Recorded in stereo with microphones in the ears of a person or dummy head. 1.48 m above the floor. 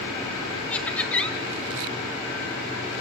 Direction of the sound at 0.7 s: 10° left (ahead or behind).